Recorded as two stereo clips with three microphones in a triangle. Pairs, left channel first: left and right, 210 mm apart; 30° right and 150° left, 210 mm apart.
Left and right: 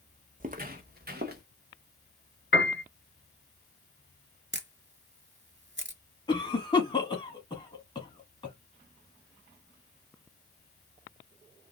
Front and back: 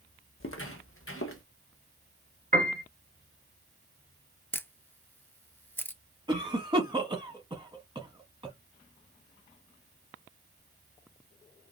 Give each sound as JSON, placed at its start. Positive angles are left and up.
{"t": 0.4, "sound": "footsteps", "azimuth_deg": -35, "distance_m": 0.7}
{"t": 2.5, "sound": "a piano", "azimuth_deg": 110, "distance_m": 0.9}
{"t": 4.5, "sound": "a camera shutter", "azimuth_deg": -110, "distance_m": 0.7}
{"t": 6.3, "sound": "a cough", "azimuth_deg": 120, "distance_m": 1.1}